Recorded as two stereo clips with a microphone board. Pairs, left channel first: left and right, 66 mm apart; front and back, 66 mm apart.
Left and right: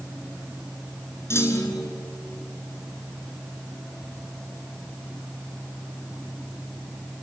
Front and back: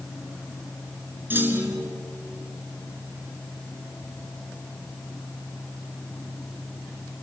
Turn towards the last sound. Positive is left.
turn(degrees=130)